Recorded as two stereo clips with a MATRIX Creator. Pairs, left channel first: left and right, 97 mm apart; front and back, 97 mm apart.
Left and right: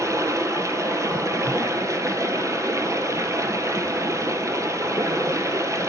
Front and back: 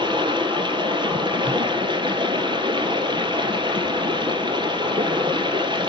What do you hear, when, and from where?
0.0 s running water: 145° right, 1.4 m